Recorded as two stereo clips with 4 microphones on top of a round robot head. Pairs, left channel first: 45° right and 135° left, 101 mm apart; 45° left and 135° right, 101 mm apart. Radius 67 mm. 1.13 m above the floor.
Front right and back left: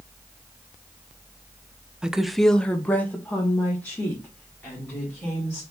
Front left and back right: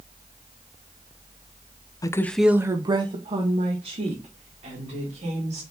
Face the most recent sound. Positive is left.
turn(degrees=-120)